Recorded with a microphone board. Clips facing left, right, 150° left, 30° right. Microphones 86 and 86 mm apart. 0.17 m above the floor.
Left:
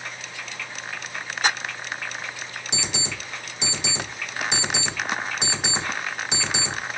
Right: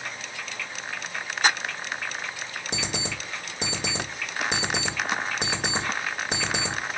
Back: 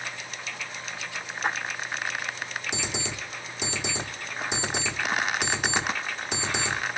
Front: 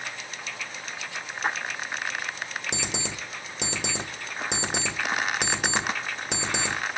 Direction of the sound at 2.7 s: 50° right.